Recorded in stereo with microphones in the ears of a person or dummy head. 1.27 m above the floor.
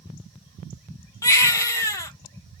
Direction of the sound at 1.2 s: 15° left (ahead or behind).